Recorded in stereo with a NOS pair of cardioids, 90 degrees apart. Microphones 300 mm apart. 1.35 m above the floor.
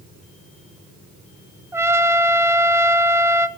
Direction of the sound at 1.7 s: 10° right.